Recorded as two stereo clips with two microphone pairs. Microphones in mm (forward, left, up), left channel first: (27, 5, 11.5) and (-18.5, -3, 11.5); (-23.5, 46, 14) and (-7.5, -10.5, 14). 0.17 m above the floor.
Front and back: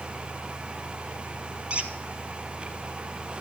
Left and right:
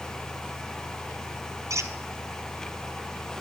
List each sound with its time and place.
1.7 s a squeak: 105° right, 1.0 m